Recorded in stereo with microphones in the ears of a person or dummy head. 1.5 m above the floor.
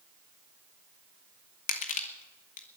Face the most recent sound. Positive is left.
turn(degrees=45)  # may be behind; listen again after turning